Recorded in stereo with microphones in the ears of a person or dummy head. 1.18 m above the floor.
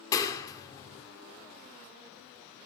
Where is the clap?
25° left (ahead or behind), 2.5 m.